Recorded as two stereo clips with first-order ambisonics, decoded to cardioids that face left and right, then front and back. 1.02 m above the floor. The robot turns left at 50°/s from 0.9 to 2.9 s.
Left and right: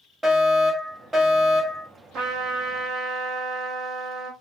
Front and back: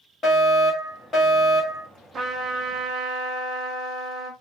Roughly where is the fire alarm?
Ahead.